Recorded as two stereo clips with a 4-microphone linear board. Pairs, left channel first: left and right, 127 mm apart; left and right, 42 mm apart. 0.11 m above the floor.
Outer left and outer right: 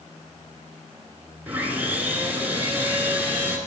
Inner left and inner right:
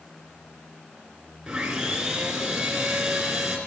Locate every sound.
1.5 s sawing: 15° right (ahead or behind), 1.9 m